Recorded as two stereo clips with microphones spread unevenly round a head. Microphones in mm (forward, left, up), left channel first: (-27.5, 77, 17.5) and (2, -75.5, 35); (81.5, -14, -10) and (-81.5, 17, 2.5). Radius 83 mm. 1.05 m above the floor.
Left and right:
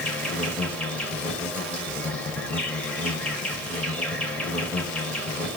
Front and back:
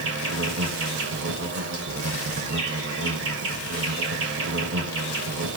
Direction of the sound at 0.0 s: 175° right.